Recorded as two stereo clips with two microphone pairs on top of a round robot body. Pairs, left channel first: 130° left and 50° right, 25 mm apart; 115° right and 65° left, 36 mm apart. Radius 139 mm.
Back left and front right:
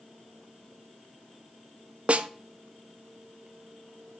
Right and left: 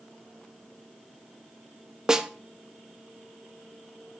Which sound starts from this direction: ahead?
A snare drum, at 2.1 s.